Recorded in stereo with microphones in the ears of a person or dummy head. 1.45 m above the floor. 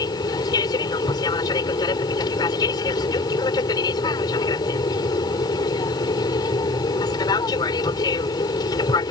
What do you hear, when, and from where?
0.0 s an aircraft: 25° left (ahead or behind)